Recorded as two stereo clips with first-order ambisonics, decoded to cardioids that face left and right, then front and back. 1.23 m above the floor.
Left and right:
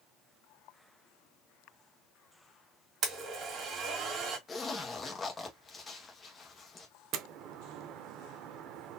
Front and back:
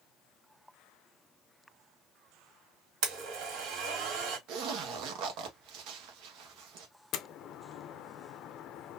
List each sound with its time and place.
3.0 s a blender: 150° right, 1.9 m
4.5 s a zipper: 160° left, 1.1 m
7.1 s a door slam: 50° right, 0.5 m